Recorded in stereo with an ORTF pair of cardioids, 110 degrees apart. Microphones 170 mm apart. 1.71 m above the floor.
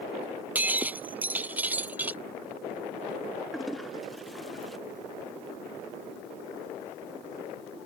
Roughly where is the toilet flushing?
Ahead.